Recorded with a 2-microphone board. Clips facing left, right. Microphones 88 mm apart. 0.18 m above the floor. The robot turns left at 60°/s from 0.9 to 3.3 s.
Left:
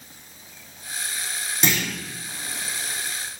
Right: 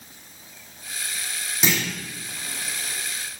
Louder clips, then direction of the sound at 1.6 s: Even; 5° right (ahead or behind).